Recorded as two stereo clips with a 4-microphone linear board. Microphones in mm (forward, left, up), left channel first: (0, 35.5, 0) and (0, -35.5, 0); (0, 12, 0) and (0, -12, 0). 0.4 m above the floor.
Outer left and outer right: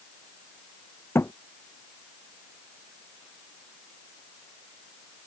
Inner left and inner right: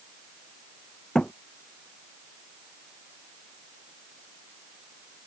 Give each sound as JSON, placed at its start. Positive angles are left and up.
{"t": 1.1, "sound": "a thud", "side_deg": 35}